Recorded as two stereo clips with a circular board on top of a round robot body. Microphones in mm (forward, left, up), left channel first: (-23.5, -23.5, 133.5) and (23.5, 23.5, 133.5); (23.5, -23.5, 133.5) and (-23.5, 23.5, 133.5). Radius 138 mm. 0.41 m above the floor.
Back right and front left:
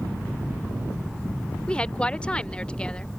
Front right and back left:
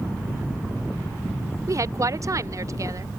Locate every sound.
1.7 s a woman speaking: 155° left